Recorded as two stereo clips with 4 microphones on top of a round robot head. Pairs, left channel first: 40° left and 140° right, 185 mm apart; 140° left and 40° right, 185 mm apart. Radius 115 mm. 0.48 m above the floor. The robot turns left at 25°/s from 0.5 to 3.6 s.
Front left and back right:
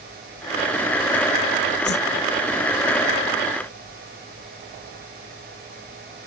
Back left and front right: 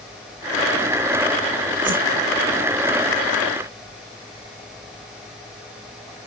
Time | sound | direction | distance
1.9 | a whoosh | 10° left | ?